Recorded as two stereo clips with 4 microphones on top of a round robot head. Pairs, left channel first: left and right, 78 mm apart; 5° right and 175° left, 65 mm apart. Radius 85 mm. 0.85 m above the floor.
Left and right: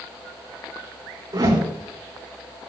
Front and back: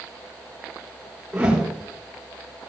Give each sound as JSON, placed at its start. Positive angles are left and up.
{"t": 1.3, "sound": "a whoosh", "azimuth_deg": -110, "distance_m": 3.0}